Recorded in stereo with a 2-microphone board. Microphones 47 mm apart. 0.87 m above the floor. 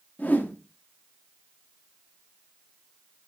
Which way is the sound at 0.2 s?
40° left (ahead or behind).